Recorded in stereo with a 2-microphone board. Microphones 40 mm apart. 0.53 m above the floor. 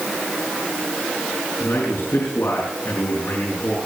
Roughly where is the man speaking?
Left.